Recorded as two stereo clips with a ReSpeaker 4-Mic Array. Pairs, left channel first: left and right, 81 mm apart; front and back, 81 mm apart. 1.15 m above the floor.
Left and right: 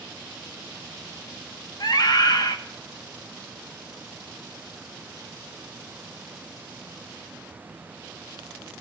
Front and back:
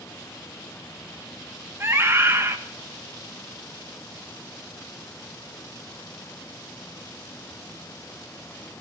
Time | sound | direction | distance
1.8 | a scream | 120° left | 1.5 m